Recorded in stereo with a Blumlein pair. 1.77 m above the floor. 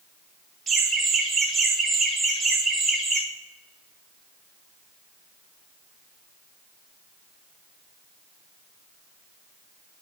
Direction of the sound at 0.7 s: 15° right.